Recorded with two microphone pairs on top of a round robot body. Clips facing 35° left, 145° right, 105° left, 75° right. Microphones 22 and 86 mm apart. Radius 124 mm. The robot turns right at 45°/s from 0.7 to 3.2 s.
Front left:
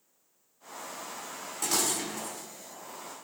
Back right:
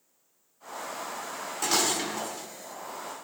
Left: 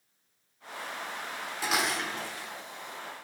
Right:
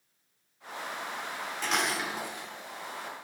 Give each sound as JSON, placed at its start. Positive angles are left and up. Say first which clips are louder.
{"t": 1.6, "sound": "dishes clattering", "louder": "back right 4 dB, left 1 dB", "azimuth_deg": -175, "distance_m": 1.1}